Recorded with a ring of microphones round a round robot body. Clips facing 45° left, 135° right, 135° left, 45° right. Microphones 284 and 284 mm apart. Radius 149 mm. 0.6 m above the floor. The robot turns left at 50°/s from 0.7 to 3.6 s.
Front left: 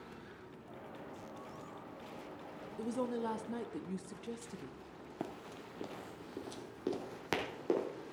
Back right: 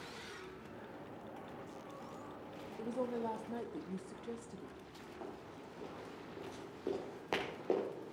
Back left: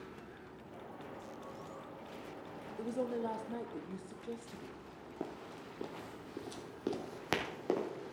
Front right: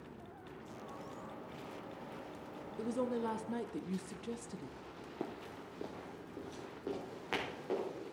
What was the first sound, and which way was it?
A woman speaking, 30° left.